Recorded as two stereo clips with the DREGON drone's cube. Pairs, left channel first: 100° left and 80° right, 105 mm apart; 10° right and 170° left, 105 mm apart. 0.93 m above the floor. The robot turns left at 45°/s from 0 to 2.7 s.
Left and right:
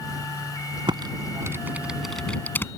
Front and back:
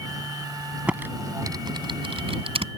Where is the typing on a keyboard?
115° right; by 2.7 s 165° left.